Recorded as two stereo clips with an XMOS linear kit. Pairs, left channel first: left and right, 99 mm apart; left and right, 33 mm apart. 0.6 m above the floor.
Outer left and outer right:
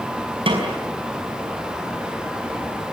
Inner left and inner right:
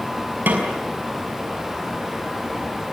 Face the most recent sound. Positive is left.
turn(degrees=-65)  # may be behind; listen again after turning